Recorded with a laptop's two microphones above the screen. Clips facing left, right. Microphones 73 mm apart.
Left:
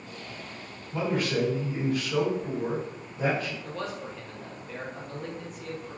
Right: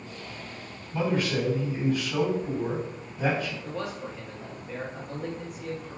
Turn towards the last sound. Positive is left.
turn(degrees=-10)  # may be behind; listen again after turning